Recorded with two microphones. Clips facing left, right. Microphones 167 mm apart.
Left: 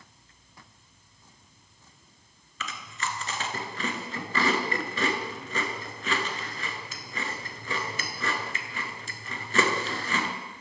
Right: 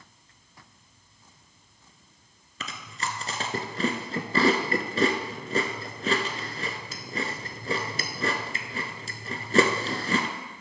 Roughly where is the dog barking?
No dog barking in this recording.